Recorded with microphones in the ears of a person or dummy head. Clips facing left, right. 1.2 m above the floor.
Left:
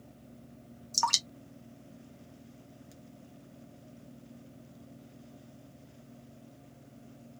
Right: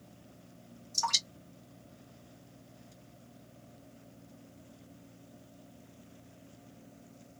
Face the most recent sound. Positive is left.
turn(degrees=70)  # may be behind; listen again after turning